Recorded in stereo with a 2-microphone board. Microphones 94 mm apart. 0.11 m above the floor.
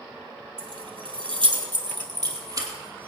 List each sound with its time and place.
0.6 s keys jangling: 65° right (ahead or behind), 2.5 m; by 3.1 s 30° right (ahead or behind), 2.5 m